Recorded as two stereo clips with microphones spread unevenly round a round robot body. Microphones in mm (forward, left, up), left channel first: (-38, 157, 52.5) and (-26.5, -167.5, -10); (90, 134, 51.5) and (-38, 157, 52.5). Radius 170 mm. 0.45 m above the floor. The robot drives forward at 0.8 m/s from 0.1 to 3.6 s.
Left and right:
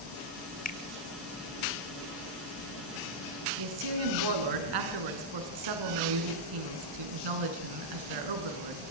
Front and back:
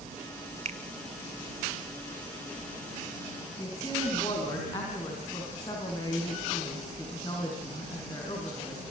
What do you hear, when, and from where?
0.7 s a finger snap: 160° left, 1.7 m; by 0.8 s 165° left, 1.8 m
3.6 s a woman speaking: 85° right, 4.5 m